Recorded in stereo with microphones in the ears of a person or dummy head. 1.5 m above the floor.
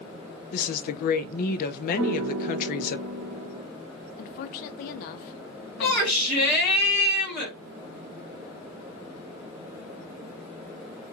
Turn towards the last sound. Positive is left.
turn(degrees=5)  # may be behind; listen again after turning